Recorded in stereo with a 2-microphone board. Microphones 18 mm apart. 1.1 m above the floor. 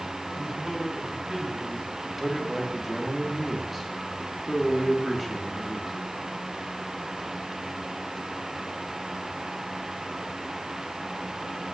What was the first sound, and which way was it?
A man speaking, 30° right (ahead or behind).